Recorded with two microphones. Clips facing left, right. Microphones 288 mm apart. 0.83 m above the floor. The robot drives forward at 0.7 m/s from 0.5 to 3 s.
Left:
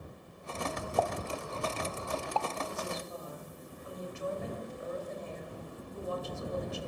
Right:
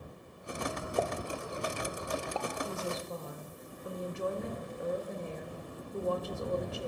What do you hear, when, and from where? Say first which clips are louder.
1.0 s a pop: even; 25° right (ahead or behind), 1.1 m; by 2.5 s 15° right (ahead or behind), 1.6 m
2.6 s a woman speaking: right 2 dB; 60° right (ahead or behind), 4.5 m; by 6.9 s 65° right (ahead or behind), 4.5 m